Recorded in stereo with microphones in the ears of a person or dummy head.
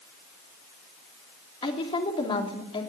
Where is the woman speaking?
35° left (ahead or behind), 2.5 m.